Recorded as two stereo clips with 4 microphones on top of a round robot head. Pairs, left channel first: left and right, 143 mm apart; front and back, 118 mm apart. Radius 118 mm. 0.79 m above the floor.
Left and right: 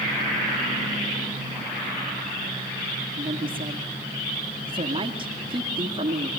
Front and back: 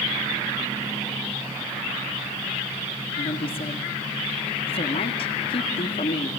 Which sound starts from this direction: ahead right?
A woman speaking, at 3.2 s.